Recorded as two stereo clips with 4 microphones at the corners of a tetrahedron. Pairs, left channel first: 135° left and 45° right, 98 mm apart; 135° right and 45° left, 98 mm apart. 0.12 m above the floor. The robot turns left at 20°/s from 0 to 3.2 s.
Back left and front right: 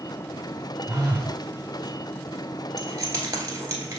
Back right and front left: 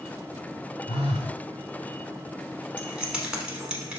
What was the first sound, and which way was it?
A phone buzzing, 115° right.